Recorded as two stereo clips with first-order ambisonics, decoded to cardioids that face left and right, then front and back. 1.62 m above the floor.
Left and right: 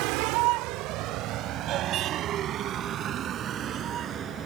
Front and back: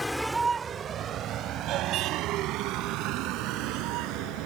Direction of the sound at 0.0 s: 85° right.